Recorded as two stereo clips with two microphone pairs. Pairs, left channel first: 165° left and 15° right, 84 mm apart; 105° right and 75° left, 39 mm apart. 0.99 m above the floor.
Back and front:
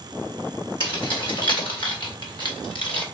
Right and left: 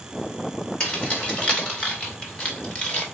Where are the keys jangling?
175° right, 3 m.